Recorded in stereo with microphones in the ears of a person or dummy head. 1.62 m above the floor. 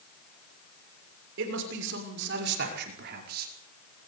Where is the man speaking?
70° right (ahead or behind), 6.5 m; by 3.5 s 55° right (ahead or behind), 4.5 m.